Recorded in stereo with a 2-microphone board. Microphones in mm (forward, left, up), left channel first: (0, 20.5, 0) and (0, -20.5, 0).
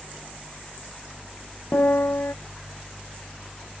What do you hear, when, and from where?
1.7 s a piano: 75° left (ahead or behind)